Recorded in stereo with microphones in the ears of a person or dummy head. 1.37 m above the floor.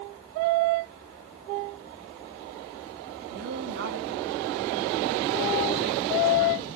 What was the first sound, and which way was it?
A woman speaking, 60° right (ahead or behind).